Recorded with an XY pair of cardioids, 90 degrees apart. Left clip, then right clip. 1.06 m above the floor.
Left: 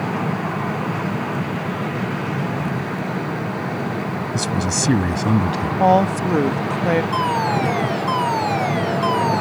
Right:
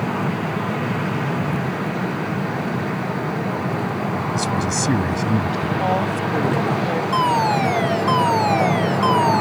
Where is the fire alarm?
15° right.